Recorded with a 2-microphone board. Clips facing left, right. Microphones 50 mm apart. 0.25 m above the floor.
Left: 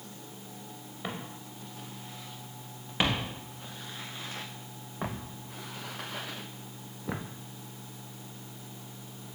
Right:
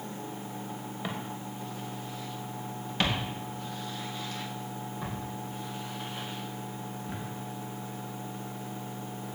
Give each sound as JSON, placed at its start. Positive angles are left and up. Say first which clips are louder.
{"t": 1.0, "sound": "footsteps", "louder": "right 1 dB", "side_deg": 5, "distance_m": 4.5}